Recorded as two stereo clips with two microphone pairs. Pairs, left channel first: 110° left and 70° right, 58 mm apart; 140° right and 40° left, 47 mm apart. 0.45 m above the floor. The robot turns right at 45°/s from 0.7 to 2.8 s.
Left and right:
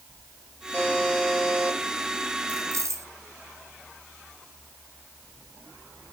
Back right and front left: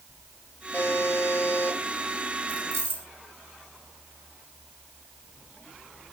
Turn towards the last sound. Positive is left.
turn(degrees=-80)